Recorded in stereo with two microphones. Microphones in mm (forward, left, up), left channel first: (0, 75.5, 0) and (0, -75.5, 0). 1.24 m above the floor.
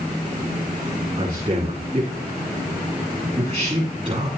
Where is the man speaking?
30° right (ahead or behind), 7 m.